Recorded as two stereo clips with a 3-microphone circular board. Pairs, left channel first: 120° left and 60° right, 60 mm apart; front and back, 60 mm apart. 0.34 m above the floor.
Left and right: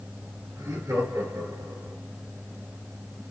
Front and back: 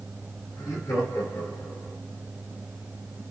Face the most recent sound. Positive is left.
turn(degrees=-20)